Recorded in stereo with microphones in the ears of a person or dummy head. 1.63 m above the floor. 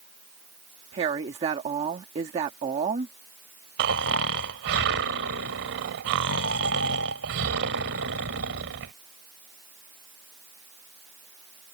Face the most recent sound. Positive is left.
turn(degrees=-65)  # may be behind; listen again after turning